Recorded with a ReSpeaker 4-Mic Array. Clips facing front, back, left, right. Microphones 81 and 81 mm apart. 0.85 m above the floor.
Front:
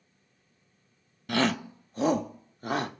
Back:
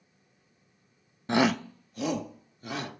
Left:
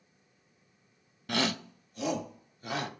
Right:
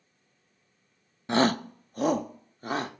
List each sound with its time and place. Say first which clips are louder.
1.3 s a shout: back 2 dB, right 8 dB; 135° right, 0.5 m; by 2.9 s 40° right, 2 m